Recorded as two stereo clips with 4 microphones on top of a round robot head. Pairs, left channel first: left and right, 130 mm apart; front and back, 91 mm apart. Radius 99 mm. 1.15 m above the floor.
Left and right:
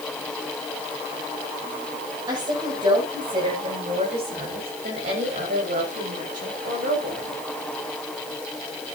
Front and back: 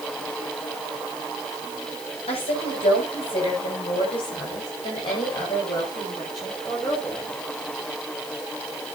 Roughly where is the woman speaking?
Ahead right.